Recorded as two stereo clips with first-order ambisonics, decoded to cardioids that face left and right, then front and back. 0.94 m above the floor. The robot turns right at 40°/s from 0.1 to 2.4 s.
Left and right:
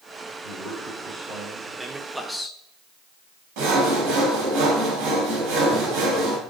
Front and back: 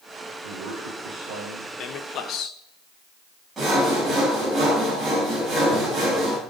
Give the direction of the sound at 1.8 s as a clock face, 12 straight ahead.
1 o'clock.